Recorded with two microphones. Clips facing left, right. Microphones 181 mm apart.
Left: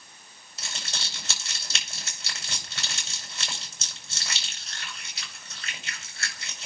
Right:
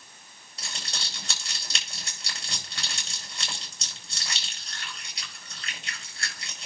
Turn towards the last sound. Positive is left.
turn(degrees=5)  # may be behind; listen again after turning